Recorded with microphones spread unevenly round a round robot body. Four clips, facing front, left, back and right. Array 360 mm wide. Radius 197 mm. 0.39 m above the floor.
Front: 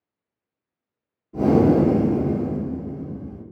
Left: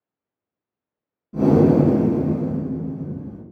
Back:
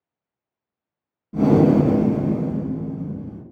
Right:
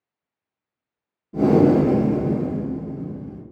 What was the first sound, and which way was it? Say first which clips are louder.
Breathing: even, back 1 dB; 165° left.